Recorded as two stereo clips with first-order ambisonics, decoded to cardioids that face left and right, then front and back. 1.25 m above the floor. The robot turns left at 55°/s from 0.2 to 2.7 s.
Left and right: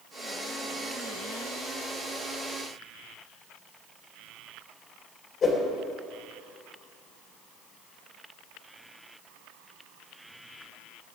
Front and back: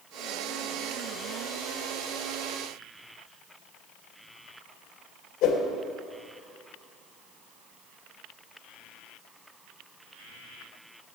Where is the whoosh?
30° left, 3.5 m.